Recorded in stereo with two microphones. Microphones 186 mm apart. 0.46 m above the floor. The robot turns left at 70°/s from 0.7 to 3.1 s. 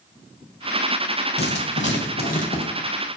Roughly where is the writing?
Behind left.